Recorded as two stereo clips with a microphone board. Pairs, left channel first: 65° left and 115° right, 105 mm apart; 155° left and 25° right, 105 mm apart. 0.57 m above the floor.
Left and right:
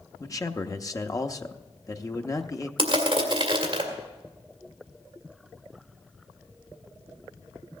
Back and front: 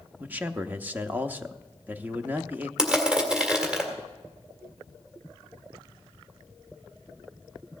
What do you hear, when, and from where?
0.2 s a man speaking: 40° left, 0.7 m
2.8 s crushing: 105° right, 1.9 m